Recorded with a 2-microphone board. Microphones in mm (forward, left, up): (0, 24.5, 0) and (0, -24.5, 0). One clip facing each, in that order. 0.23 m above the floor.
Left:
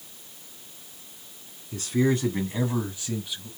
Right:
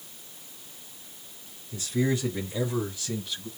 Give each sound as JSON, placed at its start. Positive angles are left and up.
{"t": 1.7, "sound": "a man speaking", "side_deg": 60, "distance_m": 2.5}